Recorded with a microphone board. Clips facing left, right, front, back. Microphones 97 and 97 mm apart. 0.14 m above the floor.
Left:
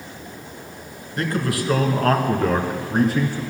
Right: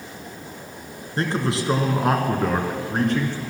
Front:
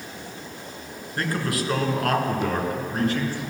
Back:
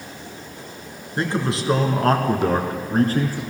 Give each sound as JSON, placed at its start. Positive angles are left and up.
{"t": 1.2, "sound": "a man speaking", "azimuth_deg": -125, "distance_m": 1.8}